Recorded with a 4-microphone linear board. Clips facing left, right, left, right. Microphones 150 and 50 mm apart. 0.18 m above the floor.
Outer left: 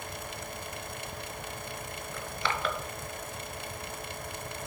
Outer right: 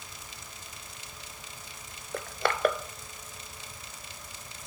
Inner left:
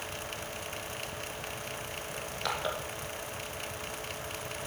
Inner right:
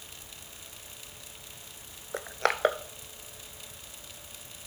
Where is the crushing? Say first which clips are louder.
Outer right 4 dB, inner right 7 dB; 55° right (ahead or behind), 0.6 m.